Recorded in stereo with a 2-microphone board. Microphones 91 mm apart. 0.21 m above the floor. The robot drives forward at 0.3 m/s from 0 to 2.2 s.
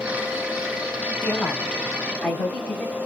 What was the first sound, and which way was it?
A woman speaking, 20° left (ahead or behind).